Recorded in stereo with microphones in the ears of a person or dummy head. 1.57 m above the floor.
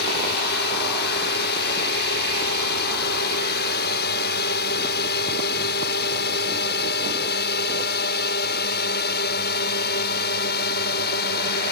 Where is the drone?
60° left (ahead or behind); by 11.7 s 55° left (ahead or behind).